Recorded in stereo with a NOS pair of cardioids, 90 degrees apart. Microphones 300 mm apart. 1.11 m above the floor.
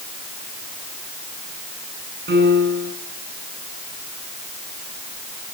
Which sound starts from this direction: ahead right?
A piano, at 2.3 s.